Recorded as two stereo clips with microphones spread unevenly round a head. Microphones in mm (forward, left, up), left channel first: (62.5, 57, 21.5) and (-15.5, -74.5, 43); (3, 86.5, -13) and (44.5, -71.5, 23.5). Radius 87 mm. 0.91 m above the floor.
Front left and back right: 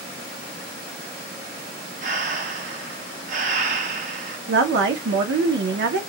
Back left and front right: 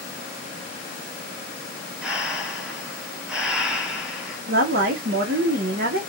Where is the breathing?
150° right, 0.5 m.